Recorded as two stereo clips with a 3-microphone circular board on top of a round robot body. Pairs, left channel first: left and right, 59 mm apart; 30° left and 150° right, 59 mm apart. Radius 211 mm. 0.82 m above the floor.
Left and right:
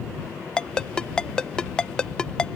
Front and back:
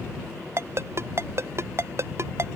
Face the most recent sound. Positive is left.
turn(degrees=165)